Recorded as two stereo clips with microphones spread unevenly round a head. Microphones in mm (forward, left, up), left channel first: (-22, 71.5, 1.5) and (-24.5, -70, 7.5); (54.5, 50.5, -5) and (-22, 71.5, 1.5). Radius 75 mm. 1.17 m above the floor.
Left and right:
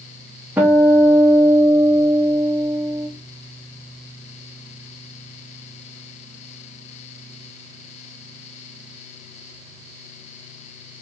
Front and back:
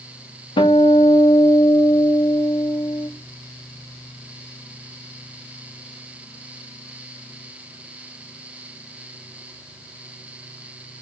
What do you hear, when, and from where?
0.6 s a guitar: 10° right, 2.5 m